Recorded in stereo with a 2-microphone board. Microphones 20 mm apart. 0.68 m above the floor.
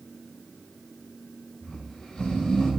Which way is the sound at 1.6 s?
50° left (ahead or behind).